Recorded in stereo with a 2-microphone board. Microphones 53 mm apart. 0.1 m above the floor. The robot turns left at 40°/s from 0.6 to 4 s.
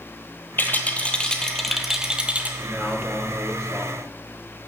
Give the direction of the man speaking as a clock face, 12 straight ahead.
12 o'clock.